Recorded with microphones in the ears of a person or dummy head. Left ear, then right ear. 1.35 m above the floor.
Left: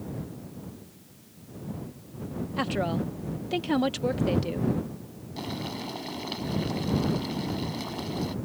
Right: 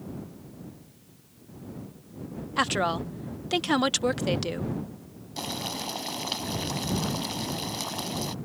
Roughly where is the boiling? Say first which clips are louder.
Right 3 dB; right.